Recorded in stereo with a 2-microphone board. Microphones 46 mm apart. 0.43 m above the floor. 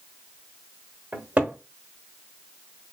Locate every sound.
1.1 s a cupboard door: 35° right (ahead or behind), 0.9 m